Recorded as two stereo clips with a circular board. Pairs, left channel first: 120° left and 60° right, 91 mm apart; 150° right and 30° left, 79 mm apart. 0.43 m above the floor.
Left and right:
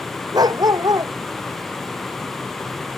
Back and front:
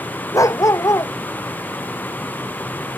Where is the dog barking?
105° right.